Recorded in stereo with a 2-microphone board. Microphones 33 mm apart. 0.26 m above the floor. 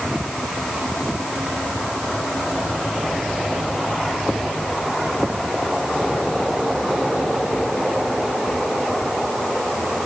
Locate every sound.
Only background noise.